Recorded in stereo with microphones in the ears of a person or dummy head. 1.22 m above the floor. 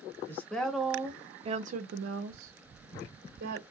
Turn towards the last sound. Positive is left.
turn(degrees=-70)  # may be behind; listen again after turning